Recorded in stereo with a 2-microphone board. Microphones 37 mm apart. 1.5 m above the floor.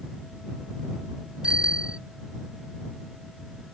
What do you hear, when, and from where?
1.4 s a bicycle bell: 25° right (ahead or behind)